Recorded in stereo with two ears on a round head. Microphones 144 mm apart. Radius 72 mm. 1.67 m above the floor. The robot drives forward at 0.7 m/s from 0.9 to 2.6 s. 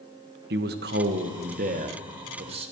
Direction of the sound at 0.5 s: 70° right (ahead or behind).